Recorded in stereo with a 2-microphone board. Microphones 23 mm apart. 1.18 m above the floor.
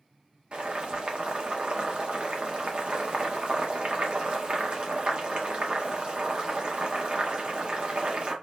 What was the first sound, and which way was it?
Boiling, 50° right (ahead or behind).